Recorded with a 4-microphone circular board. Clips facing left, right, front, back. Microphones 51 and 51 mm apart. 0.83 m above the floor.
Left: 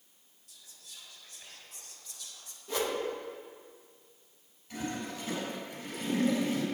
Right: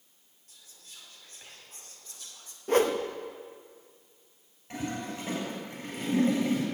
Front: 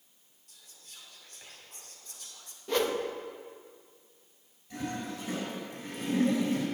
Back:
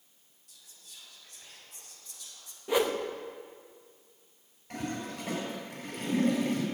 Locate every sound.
0.5 s whispering: 40° right, 2.5 m
2.7 s a whoosh: 105° right, 0.8 m
4.7 s a toilet flushing: 140° right, 6 m